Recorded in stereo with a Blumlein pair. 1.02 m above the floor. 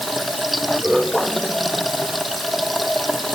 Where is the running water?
Straight ahead.